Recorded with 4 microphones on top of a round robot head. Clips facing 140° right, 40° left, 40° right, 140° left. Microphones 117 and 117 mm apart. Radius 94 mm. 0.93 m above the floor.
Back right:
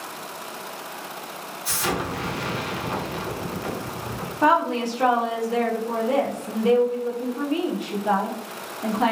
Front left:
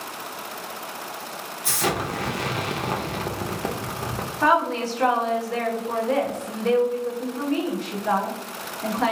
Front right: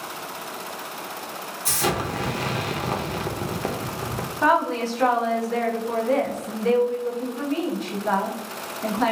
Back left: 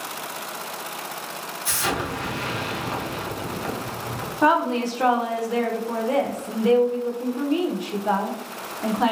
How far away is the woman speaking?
About 0.6 m.